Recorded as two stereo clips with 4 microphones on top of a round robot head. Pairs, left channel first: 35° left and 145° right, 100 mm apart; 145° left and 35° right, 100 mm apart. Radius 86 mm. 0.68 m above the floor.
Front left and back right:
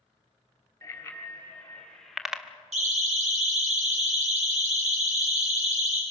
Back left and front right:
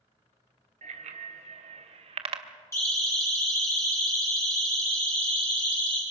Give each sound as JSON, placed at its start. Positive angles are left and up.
{"t": 0.8, "sound": "a bicycle bell", "azimuth_deg": -30, "distance_m": 3.0}
{"t": 2.7, "sound": "a siren", "azimuth_deg": -150, "distance_m": 6.5}